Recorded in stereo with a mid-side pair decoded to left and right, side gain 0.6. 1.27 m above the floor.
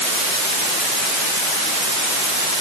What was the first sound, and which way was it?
Only background noise.